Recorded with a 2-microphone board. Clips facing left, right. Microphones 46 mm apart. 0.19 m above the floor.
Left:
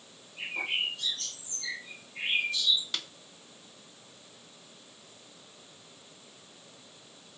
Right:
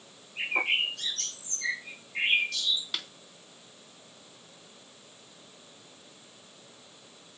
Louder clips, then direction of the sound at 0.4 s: Right 5 dB; 85° right.